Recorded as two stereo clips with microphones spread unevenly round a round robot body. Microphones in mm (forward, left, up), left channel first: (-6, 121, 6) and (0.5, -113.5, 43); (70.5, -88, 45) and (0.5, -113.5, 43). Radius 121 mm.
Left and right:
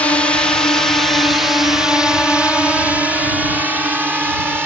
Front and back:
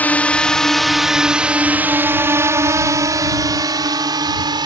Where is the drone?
45° left; by 4.7 s 175° right.